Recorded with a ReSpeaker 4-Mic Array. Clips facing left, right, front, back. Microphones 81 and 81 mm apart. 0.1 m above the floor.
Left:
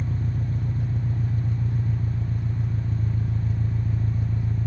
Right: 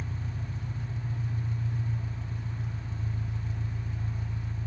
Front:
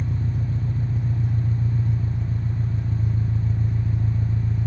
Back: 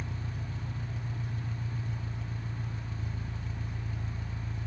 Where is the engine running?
50° left, 0.8 m.